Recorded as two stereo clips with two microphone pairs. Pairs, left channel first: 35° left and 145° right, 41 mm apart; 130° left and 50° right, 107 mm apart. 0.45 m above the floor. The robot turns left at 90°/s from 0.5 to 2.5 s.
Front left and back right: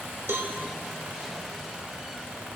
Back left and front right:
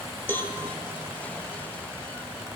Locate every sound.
0.3 s a cowbell: 160° right, 0.8 m; by 0.5 s 165° right, 0.8 m